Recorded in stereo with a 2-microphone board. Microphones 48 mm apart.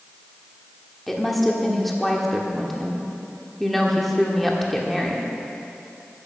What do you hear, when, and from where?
1.1 s a woman speaking: 5° left (ahead or behind), 1.4 m